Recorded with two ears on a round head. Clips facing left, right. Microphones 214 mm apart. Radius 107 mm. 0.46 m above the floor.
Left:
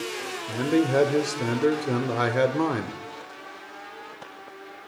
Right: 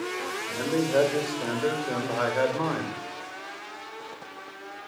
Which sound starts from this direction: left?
A man speaking, at 0.5 s.